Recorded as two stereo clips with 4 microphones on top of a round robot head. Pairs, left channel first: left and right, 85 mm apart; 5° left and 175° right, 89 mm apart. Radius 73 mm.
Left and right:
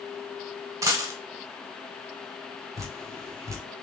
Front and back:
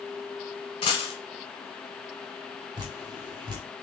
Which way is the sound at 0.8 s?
40° right.